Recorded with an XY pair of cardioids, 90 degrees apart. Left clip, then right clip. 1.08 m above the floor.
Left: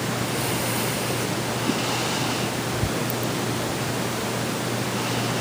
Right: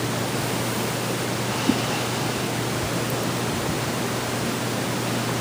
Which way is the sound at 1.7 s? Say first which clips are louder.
Right 3 dB; 40° right.